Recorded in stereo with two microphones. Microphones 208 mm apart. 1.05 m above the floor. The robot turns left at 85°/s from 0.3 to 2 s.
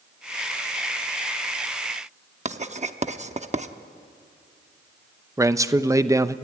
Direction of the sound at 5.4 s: 15° right (ahead or behind).